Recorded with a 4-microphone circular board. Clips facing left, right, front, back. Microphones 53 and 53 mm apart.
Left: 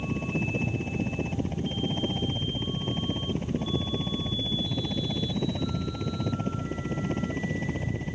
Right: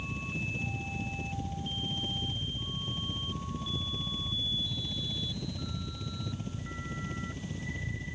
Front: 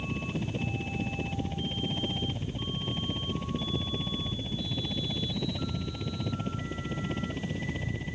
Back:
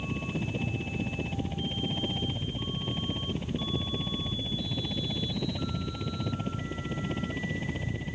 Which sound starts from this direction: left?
A helicopter, at 0.0 s.